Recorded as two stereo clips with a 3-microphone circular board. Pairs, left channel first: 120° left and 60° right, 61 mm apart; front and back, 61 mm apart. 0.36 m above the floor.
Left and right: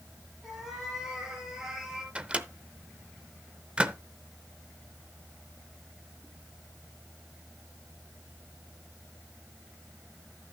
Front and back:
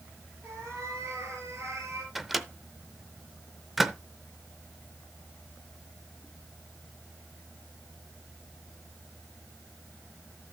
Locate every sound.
0.4 s a cat meowing: 140° right, 5.5 m
2.1 s a microwave: 95° right, 0.7 m